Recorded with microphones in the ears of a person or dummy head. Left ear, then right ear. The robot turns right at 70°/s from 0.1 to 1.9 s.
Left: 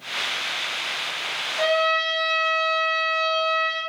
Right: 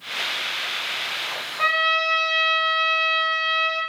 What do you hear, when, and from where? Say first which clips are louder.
1.6 s a trumpet: right 1 dB; 45° left (ahead or behind), 1.5 m; by 3.8 s 30° left (ahead or behind), 1.5 m